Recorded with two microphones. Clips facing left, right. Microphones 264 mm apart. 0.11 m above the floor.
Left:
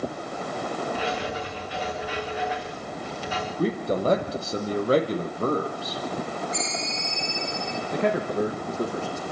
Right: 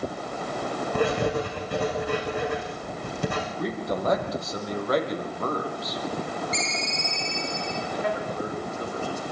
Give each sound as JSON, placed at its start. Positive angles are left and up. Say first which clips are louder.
{"t": 0.9, "sound": "writing", "louder": "right 6 dB", "side_deg": -55, "distance_m": 6.0}
{"t": 3.6, "sound": "a man speaking", "louder": "left 5 dB", "side_deg": 30, "distance_m": 4.5}
{"t": 6.5, "sound": "a ringtone", "louder": "even", "side_deg": -75, "distance_m": 5.0}
{"t": 7.9, "sound": "a man speaking", "louder": "left 7 dB", "side_deg": 65, "distance_m": 5.5}